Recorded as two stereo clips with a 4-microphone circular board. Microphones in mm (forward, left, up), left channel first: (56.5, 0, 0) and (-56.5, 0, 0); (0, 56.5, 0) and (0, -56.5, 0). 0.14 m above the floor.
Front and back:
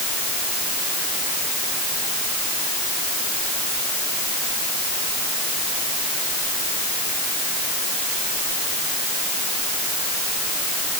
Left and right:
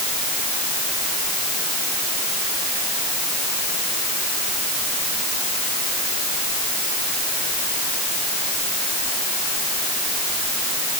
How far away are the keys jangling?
I don't hear keys jangling.